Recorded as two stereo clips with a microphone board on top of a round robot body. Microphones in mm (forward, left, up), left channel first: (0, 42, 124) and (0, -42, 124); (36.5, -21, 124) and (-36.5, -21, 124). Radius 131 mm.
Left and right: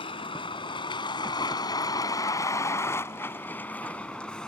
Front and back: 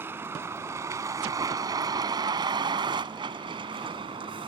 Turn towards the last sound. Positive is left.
turn(degrees=170)